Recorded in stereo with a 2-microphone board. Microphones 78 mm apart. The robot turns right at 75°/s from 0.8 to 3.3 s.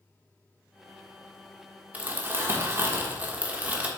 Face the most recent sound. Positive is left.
turn(degrees=-40)